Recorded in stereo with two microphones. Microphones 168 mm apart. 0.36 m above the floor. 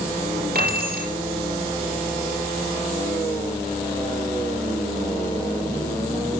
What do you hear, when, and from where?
0.6 s keys jangling: 65° right (ahead or behind), 4.5 m